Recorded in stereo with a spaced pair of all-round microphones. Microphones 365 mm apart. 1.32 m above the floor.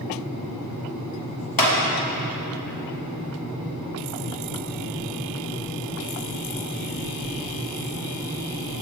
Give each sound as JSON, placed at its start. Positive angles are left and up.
{"t": 1.6, "sound": "a clap", "side_deg": 65, "distance_m": 1.1}